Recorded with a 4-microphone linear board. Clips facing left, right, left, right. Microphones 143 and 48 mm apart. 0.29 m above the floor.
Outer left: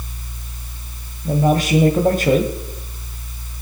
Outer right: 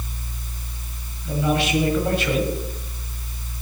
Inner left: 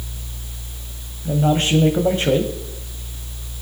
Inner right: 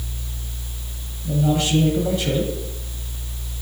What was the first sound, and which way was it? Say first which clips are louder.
A man speaking: outer left 5 dB, inner left 2 dB; 45° left (ahead or behind).